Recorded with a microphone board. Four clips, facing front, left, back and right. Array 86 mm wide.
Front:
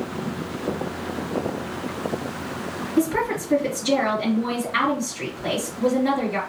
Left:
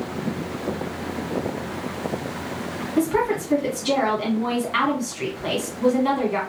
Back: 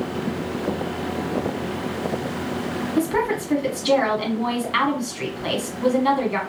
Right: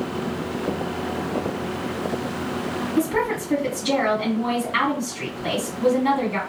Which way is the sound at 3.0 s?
Straight behind.